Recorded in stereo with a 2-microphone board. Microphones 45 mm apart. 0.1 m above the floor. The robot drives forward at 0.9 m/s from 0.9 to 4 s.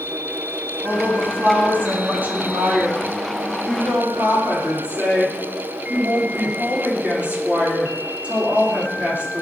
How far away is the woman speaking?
About 5.5 m.